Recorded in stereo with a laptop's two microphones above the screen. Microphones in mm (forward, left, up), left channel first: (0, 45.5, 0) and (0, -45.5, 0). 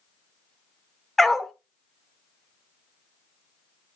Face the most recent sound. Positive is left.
turn(degrees=0)  # may be behind; listen again after turning